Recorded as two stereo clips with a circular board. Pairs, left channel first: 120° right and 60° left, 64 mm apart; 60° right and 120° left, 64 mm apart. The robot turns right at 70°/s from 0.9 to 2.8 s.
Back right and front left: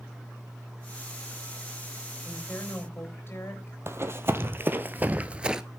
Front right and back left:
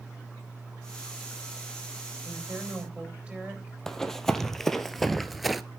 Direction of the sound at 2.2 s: 150° left.